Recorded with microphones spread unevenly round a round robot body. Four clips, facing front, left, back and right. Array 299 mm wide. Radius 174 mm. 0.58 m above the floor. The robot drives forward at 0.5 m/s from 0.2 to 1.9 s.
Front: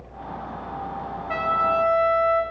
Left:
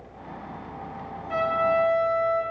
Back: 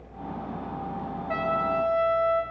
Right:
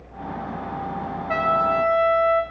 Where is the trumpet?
90° right, 1.4 m; by 2.4 s 100° right, 1.4 m.